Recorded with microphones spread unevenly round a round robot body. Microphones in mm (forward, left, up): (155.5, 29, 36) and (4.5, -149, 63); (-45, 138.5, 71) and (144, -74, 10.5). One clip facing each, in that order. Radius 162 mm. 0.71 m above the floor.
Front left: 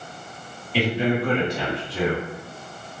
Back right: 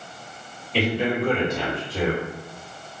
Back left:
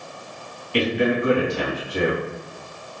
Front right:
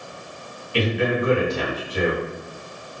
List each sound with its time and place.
0.7 s a man speaking: 130° left, 1.3 m